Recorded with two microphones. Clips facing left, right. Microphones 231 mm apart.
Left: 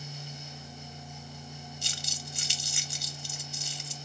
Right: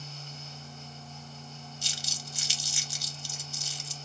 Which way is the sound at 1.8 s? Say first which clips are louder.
Left 1 dB; 60° left (ahead or behind).